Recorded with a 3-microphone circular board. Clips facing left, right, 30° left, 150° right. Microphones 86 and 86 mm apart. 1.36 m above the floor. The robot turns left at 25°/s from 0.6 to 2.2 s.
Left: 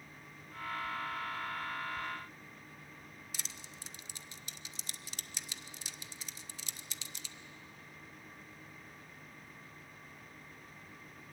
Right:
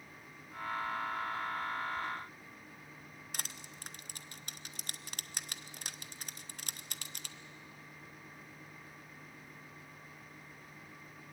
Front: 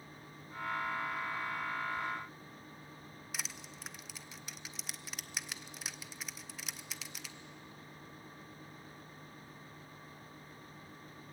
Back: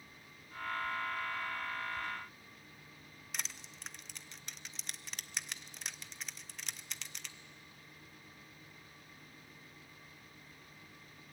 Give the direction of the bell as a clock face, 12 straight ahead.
No bell in this recording.